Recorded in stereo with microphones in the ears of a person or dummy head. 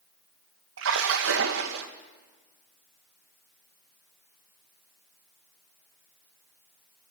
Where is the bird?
No bird in this recording.